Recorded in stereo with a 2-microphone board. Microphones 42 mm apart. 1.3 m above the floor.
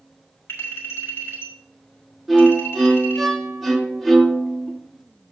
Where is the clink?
85° left, 4 m.